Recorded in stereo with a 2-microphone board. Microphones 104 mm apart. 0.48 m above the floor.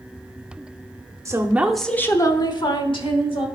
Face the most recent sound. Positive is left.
turn(degrees=60)  # may be behind; listen again after turning